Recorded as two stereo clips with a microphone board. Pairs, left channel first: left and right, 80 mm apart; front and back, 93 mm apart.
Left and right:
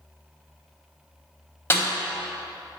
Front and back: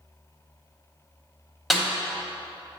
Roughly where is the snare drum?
Left.